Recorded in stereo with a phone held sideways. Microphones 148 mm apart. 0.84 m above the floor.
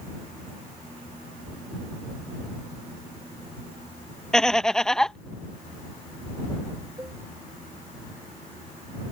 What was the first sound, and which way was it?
Laughter, 5° left (ahead or behind).